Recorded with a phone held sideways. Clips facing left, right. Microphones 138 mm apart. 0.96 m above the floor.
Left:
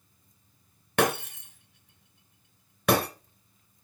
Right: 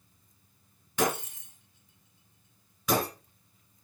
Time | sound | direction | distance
1.0 | breaking glass | 70° left (ahead or behind) | 2 m